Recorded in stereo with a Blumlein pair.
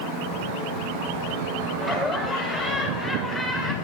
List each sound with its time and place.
1.8 s laughter: 5° right, 5.5 m; by 3.7 s straight ahead, 4 m